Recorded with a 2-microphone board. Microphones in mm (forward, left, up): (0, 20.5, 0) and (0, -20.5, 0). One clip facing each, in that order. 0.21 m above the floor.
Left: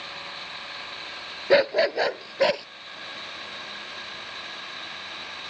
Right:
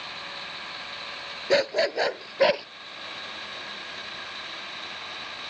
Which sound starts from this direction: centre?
A dog barking, at 1.5 s.